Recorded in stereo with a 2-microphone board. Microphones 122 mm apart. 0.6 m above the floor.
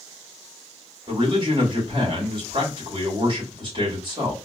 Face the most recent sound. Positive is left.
turn(degrees=-40)  # may be behind; listen again after turning